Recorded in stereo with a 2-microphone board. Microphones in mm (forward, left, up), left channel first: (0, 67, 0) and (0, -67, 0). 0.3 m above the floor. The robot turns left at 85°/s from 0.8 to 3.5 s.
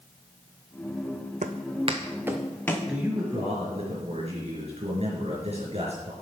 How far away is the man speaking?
About 4 m.